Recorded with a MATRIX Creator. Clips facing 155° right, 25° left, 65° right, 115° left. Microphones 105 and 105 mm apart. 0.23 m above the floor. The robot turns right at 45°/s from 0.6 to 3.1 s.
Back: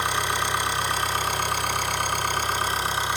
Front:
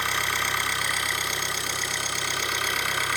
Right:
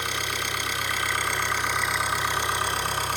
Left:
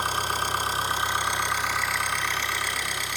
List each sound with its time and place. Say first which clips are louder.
0.0 s an engine running: back 3 dB, left 4 dB; 140° left, 2.0 m; by 3.2 s 105° right, 2.0 m